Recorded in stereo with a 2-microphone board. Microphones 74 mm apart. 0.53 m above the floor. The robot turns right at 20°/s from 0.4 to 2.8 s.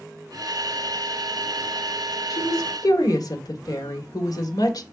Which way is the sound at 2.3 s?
55° left (ahead or behind).